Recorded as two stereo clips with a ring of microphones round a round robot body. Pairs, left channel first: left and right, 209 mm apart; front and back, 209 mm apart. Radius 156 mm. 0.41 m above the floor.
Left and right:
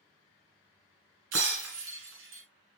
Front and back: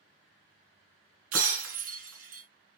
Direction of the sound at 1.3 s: 140° right.